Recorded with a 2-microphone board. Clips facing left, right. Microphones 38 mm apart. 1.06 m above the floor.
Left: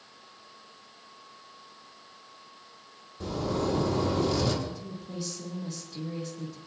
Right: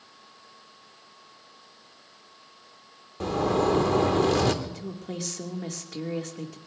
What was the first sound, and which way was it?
A zipper, 65° right (ahead or behind).